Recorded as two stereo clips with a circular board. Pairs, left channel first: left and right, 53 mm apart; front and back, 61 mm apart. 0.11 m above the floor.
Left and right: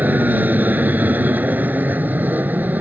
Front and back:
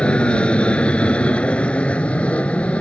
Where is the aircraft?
60° right.